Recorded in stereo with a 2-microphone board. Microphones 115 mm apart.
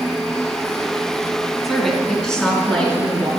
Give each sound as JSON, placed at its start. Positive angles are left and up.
{"t": 1.6, "sound": "a woman speaking", "side_deg": 0, "distance_m": 4.0}